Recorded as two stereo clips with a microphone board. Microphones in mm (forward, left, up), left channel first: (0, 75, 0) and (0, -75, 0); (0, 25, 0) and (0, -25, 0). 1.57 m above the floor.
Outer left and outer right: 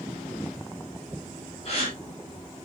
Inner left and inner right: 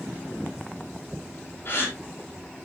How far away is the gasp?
About 3.5 m.